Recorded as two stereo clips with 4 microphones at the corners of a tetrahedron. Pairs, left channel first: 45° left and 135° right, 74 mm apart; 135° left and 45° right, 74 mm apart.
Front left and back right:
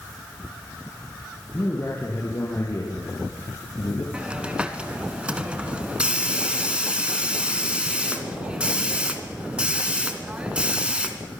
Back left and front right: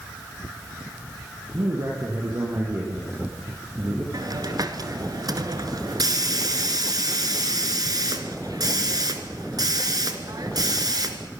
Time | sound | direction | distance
1.5 | a man speaking | 10° right | 6 m
4.1 | a hiss | 60° right | 2 m